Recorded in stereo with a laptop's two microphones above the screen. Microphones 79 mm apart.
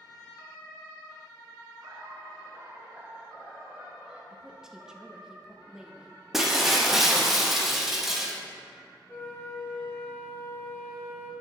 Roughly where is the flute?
Left.